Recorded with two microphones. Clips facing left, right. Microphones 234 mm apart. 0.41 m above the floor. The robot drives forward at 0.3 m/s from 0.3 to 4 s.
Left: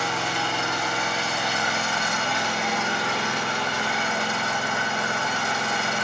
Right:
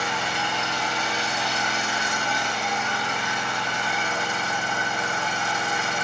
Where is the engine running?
45° left (ahead or behind), 1.2 m; by 6.0 s 70° left (ahead or behind), 1.0 m.